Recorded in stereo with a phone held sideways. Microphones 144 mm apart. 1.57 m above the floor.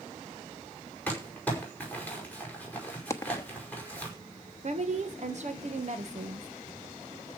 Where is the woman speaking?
50° right (ahead or behind), 1.7 m.